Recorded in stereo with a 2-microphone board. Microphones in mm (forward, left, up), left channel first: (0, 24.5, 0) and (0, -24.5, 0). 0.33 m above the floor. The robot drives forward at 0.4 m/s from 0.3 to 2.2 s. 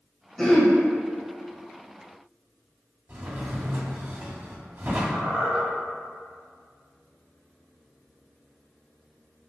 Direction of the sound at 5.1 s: 30° right (ahead or behind).